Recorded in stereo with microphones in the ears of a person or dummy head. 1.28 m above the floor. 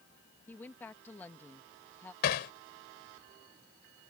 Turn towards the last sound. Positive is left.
turn(degrees=60)  # may be behind; listen again after turning